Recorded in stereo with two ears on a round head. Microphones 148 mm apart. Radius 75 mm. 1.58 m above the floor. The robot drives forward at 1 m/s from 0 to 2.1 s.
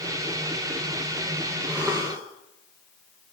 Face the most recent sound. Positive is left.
turn(degrees=-10)  # may be behind; listen again after turning